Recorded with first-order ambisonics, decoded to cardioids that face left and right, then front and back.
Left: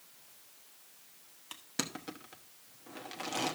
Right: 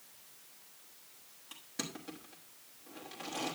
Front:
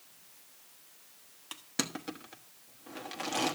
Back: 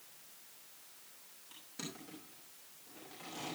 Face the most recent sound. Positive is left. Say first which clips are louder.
# left 4 dB, front 12 dB
turn(degrees=30)